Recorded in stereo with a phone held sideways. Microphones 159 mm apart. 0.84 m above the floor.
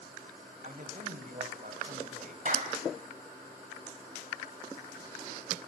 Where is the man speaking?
55° right (ahead or behind), 4 m.